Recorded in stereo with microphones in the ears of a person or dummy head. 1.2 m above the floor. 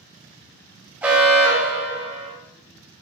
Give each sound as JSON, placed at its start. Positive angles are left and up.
{"t": 1.0, "sound": "an alarm", "side_deg": -10, "distance_m": 0.9}